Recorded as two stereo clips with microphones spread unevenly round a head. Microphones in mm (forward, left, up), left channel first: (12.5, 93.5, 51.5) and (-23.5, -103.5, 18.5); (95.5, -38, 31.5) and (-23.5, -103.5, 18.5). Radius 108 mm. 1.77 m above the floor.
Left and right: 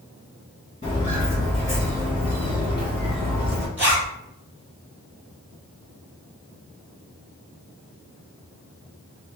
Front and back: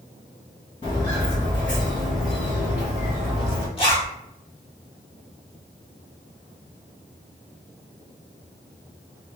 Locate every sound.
0.8 s footsteps: 45° left, 2.0 m; by 3.7 s 130° right, 1.9 m
3.8 s a zipper: 20° right, 1.5 m